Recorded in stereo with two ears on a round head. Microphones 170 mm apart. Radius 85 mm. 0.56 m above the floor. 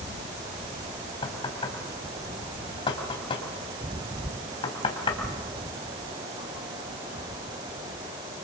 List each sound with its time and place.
1.2 s knocking: 25° left (ahead or behind), 3.5 m